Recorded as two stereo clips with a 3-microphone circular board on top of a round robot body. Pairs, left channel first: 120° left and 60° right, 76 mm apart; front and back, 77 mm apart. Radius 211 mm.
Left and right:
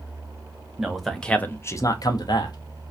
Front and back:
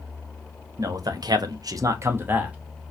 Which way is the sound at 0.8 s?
145° right.